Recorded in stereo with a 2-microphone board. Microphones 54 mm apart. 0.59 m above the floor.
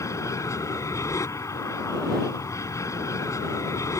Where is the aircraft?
70° left (ahead or behind).